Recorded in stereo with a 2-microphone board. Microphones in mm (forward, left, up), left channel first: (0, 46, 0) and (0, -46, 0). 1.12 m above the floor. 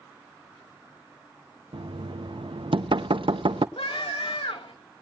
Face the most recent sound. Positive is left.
turn(degrees=70)  # may be behind; listen again after turning